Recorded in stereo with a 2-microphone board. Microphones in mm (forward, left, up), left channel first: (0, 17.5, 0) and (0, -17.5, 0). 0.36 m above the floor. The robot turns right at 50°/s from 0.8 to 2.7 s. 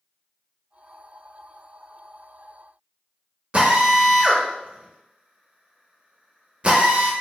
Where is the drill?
35° right (ahead or behind), 0.8 m.